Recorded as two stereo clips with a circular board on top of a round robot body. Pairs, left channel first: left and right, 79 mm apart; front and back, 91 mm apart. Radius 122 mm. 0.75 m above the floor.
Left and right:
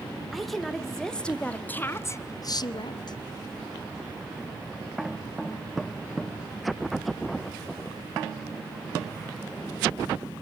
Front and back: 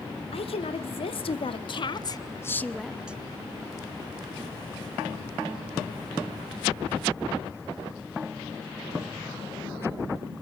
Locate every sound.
0.3 s a woman speaking: straight ahead, 2.5 m; by 3.2 s 105° left, 1.2 m